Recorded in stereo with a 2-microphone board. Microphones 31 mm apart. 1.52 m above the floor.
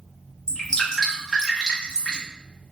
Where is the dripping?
20° left (ahead or behind), 0.9 m.